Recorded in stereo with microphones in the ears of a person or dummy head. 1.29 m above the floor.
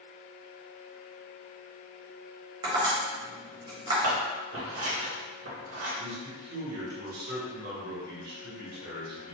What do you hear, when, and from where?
2.6 s tapping: 35° right (ahead or behind), 1.0 m
4.0 s scissors: 75° right (ahead or behind), 1.3 m
6.0 s a man speaking: 60° right (ahead or behind), 1.4 m